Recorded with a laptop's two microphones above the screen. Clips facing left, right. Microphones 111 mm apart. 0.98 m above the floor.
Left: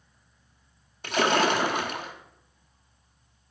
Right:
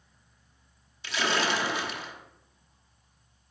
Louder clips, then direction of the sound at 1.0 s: Left 6 dB; 50° left (ahead or behind).